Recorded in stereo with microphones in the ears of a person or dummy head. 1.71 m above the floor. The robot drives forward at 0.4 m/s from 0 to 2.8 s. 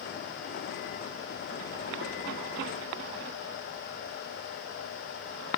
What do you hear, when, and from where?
Only background noise.